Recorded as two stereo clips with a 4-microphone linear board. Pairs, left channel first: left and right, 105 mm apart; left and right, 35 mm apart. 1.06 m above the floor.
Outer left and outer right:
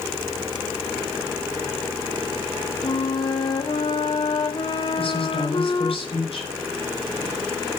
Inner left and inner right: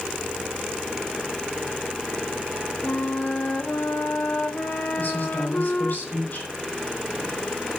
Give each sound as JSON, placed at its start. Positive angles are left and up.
{"t": 2.8, "sound": "a flute", "side_deg": 50, "distance_m": 1.4}
{"t": 5.0, "sound": "a woman speaking", "side_deg": 65, "distance_m": 5.5}